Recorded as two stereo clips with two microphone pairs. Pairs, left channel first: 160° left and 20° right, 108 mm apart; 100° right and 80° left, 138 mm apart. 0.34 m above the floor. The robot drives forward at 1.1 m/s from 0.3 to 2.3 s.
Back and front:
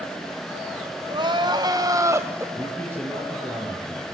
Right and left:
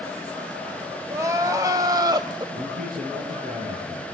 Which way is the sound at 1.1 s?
15° left.